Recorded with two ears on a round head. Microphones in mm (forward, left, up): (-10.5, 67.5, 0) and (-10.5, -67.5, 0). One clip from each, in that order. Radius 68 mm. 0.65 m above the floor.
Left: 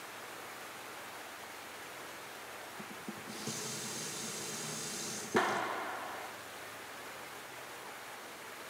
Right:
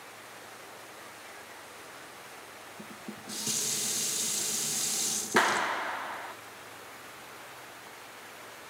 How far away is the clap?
About 0.7 m.